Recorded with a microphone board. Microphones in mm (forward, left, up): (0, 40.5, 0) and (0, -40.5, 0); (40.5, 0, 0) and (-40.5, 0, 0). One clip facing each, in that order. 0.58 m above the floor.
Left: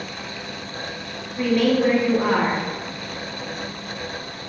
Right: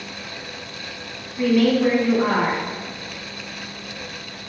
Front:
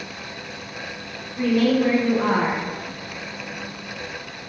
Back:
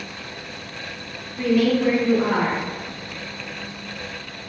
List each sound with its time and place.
1.4 s a woman speaking: straight ahead, 0.8 m